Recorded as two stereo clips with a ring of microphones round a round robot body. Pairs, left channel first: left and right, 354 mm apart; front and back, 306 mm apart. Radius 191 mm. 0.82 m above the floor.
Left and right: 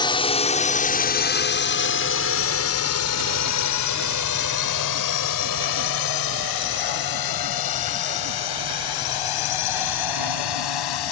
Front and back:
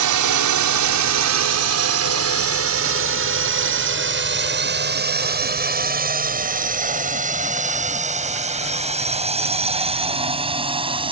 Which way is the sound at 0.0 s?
165° left.